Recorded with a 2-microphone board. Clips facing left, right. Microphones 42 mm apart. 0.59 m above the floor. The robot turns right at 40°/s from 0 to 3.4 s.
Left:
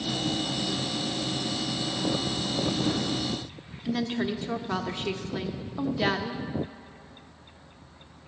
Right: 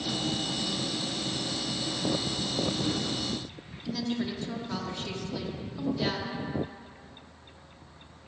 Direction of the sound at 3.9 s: 35° left (ahead or behind).